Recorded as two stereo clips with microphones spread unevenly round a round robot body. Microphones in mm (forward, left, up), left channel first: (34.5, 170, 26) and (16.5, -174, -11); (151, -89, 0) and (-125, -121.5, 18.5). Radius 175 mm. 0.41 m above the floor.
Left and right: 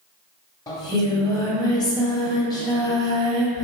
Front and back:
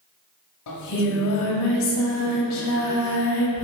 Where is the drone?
I don't hear a drone.